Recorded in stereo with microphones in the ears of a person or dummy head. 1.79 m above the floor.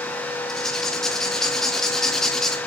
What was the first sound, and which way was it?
Writing, centre (ahead or behind).